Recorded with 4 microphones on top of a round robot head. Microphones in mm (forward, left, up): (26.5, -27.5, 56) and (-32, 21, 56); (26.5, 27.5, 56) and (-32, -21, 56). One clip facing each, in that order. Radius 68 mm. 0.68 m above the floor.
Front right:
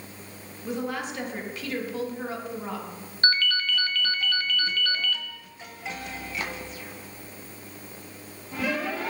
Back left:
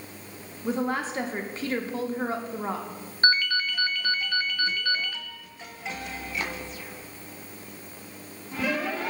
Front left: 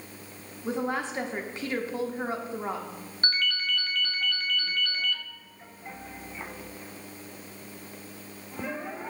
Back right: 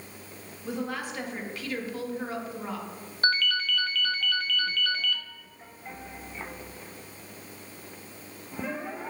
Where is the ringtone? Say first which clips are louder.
Back left 1 dB, back right 4 dB; 145° right, 0.5 m.